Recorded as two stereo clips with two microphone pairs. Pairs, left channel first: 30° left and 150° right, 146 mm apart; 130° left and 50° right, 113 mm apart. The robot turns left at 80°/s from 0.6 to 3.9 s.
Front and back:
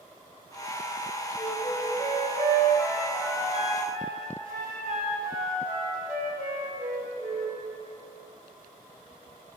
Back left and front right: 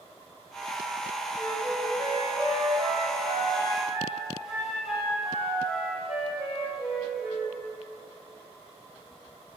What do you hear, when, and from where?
1.4 s a flute: 70° left, 3.5 m; by 7.6 s 130° right, 3.5 m